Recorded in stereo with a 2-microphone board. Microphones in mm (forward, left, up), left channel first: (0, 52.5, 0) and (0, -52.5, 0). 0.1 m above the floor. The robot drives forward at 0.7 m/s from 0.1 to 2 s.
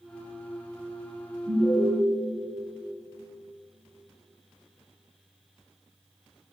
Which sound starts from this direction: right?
An alarm, at 1.5 s.